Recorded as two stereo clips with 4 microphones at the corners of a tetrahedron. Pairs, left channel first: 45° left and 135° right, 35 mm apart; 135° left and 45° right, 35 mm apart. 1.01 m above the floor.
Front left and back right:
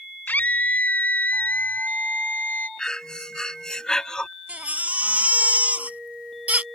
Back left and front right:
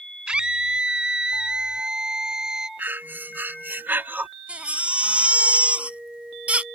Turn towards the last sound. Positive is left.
turn(degrees=-95)